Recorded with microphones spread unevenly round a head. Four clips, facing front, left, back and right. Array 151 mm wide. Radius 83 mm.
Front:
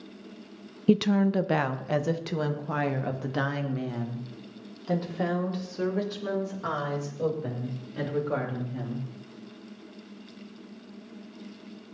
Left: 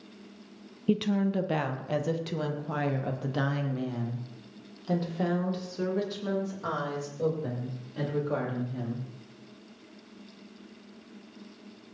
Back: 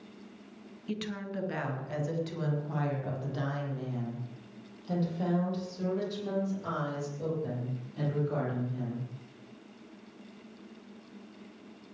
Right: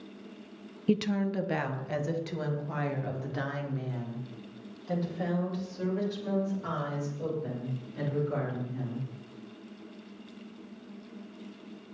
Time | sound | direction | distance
0.9 | a woman speaking | straight ahead | 0.9 m